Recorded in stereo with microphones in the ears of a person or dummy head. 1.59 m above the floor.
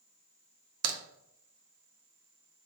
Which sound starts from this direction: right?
A crack, at 0.8 s.